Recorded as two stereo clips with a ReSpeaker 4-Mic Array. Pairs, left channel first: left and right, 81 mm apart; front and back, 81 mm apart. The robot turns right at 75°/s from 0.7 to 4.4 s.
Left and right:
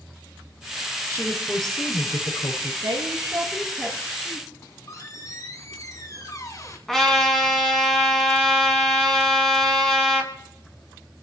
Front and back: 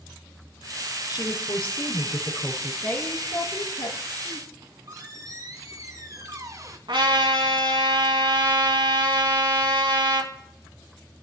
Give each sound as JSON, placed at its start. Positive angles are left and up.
{"t": 1.1, "sound": "a woman speaking", "azimuth_deg": -35, "distance_m": 5.5}
{"t": 2.8, "sound": "a woman speaking", "azimuth_deg": -70, "distance_m": 7.5}
{"t": 4.5, "sound": "a squeak", "azimuth_deg": 135, "distance_m": 2.5}
{"t": 6.9, "sound": "a trumpet", "azimuth_deg": 175, "distance_m": 4.5}